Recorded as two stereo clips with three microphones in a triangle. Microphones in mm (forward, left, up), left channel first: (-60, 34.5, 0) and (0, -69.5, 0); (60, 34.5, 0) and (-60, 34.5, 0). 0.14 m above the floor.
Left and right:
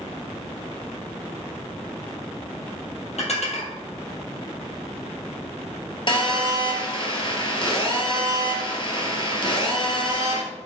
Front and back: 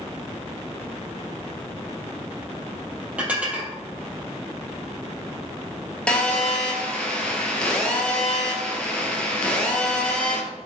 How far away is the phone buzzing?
About 2 m.